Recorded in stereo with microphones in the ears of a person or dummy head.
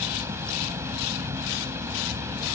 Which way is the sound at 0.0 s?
10° right (ahead or behind).